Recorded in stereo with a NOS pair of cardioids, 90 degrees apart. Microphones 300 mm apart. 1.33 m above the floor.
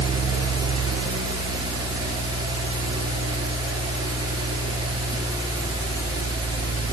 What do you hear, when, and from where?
0.0 s a fan: 15° right, 6.5 m